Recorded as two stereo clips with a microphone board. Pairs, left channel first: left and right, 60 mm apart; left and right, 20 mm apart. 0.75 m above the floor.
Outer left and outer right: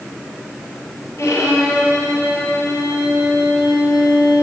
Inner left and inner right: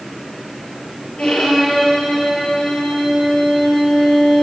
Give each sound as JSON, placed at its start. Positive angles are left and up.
{"t": 1.2, "sound": "a violin", "side_deg": 50, "distance_m": 8.5}